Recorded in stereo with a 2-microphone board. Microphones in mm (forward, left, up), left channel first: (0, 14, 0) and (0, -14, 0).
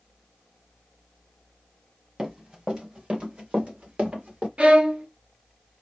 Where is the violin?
40° right (ahead or behind), 0.7 m.